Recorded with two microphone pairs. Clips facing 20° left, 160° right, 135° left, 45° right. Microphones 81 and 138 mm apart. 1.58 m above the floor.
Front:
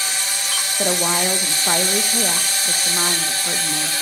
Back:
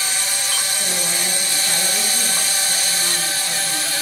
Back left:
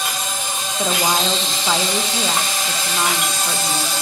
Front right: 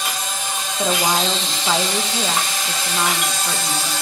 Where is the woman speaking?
45° left, 1.7 m.